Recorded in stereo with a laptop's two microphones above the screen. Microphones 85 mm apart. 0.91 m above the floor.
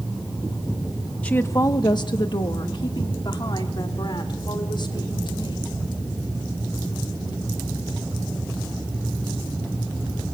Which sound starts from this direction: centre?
A woman speaking, at 1.2 s.